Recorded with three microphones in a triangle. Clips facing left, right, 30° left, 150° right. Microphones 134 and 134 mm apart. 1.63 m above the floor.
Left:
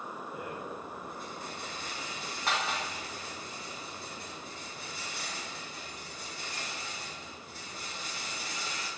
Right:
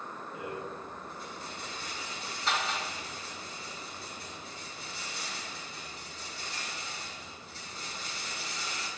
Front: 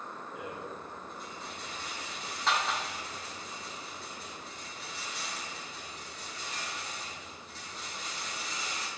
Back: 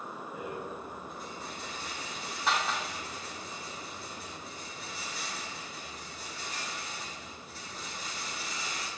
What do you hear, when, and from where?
0.3 s a rattle: 125° left, 4.5 m